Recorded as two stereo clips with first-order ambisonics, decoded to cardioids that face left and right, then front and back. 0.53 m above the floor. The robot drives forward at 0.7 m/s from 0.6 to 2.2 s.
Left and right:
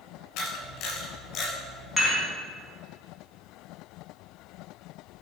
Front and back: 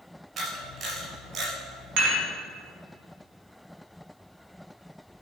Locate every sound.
0.4 s a camera shutter: 120° left, 2.5 m; by 1.5 s 135° left, 3 m
2.0 s dishes clattering: 175° right, 2.5 m